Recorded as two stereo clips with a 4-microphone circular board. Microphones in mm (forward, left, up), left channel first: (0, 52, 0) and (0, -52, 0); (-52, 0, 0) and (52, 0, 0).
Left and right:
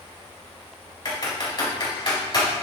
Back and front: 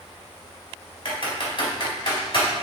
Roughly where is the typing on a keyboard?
Behind left.